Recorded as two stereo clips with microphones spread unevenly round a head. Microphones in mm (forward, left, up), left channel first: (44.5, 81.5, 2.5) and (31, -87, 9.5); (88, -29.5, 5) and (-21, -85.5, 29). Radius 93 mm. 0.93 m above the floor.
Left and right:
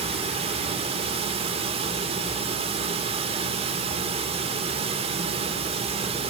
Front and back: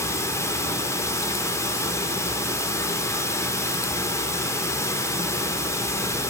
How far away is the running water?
About 2.5 m.